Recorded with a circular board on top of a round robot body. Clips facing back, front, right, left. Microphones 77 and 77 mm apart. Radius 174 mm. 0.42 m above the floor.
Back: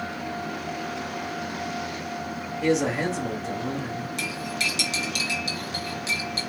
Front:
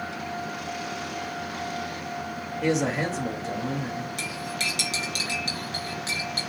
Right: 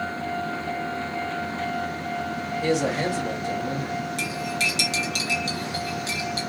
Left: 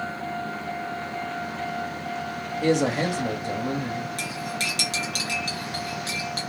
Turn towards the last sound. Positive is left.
turn(degrees=45)